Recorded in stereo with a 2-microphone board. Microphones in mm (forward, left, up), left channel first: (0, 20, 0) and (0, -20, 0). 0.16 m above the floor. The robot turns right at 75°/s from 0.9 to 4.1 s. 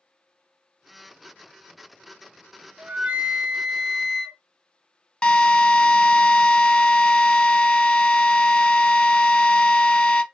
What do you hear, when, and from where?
2.8 s a flute: 105° right, 0.6 m; by 4.4 s 5° right, 0.6 m
5.2 s a drill: 25° left (ahead or behind), 0.6 m